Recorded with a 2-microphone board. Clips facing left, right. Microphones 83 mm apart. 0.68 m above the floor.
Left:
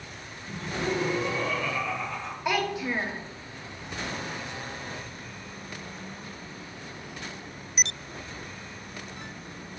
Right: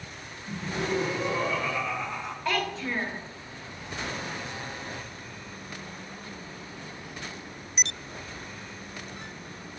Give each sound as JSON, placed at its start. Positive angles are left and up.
{"t": 0.5, "sound": "laughter", "side_deg": -30, "distance_m": 1.1}
{"t": 2.5, "sound": "a child speaking", "side_deg": 15, "distance_m": 0.5}